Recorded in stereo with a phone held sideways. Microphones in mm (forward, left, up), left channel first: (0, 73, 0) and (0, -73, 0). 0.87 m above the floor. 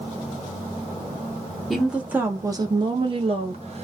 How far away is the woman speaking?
About 0.8 m.